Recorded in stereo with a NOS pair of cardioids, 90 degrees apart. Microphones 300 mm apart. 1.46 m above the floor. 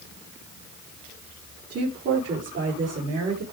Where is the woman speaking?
50° right, 3.5 m; by 3.4 s 60° right, 4.5 m.